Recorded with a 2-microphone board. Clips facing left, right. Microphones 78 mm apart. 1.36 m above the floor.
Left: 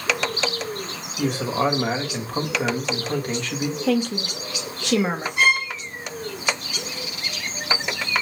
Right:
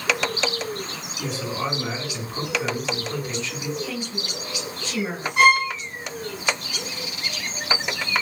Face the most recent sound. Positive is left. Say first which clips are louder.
# right 5 dB
turn(degrees=-70)  # may be behind; listen again after turning